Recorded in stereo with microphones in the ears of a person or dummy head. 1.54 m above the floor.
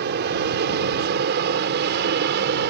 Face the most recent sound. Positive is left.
turn(degrees=-55)  # may be behind; listen again after turning